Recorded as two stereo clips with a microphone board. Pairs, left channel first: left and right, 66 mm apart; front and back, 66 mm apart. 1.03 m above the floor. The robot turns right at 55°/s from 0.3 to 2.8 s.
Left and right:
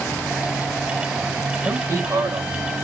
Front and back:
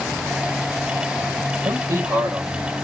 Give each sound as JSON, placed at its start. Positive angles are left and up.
{"t": 1.6, "sound": "a man speaking", "azimuth_deg": -155, "distance_m": 5.0}